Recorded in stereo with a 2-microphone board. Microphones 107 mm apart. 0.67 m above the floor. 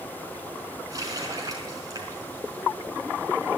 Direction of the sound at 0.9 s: 35° right (ahead or behind).